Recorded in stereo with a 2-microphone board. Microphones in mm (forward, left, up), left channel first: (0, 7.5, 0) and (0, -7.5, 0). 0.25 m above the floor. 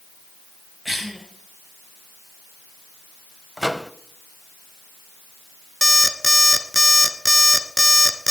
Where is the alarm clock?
5° right (ahead or behind), 1.5 m.